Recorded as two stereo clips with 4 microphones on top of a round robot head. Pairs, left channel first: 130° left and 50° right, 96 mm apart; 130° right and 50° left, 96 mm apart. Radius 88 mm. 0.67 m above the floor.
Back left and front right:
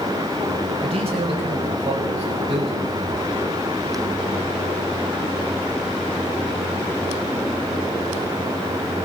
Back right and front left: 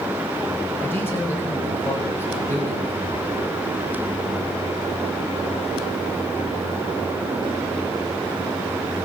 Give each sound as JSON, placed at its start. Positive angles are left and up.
{"t": 0.8, "sound": "a man speaking", "azimuth_deg": -65, "distance_m": 5.5}